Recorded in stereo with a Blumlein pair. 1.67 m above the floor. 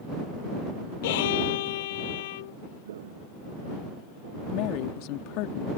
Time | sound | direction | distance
1.0 | a violin | 50° left | ?
2.9 | footsteps | 60° right | ?
4.5 | a woman speaking | 45° left | ?